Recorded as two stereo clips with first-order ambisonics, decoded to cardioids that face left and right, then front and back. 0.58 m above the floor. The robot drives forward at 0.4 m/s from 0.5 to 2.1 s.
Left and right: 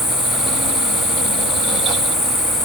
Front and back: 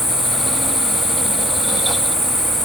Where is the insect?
65° left, 1.7 m; by 2.7 s 95° left, 1.6 m.